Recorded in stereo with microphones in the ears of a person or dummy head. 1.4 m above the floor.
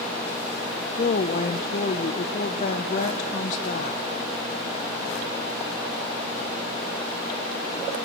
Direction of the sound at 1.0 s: 45° left (ahead or behind).